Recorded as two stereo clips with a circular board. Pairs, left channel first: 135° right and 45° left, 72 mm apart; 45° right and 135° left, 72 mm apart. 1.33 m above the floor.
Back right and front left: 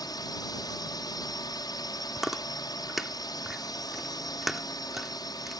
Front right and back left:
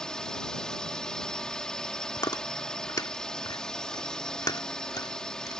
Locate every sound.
0.0 s a drone: 125° right
2.2 s chewing: 40° right